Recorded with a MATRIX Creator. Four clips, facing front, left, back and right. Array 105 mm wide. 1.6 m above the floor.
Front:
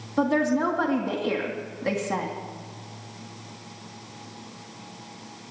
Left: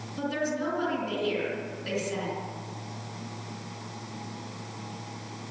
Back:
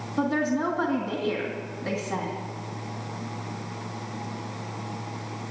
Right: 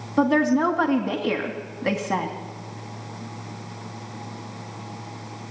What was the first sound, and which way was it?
A woman speaking, 75° right.